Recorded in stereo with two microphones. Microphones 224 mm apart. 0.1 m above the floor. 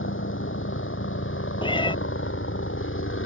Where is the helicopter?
70° left (ahead or behind).